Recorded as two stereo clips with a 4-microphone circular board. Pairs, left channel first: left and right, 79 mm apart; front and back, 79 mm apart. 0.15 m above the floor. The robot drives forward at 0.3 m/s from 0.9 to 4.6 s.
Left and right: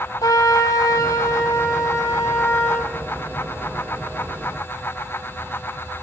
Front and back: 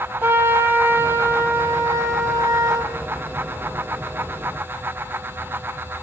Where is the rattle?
No rattle in this recording.